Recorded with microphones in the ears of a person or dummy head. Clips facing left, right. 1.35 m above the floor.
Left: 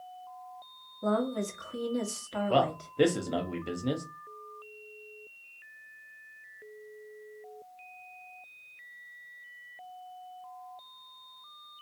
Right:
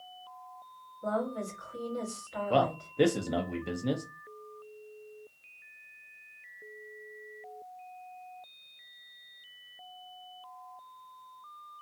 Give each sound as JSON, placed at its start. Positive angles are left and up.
{"t": 1.0, "sound": "a woman speaking", "side_deg": 55, "distance_m": 1.2}
{"t": 2.5, "sound": "a man speaking", "side_deg": 0, "distance_m": 0.6}